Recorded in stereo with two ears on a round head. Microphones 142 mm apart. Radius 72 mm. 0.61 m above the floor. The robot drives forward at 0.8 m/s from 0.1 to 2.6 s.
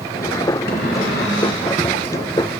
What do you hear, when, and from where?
0.7 s a cupboard door: 65° left (ahead or behind), 2 m; by 1.7 s 85° left, 1.9 m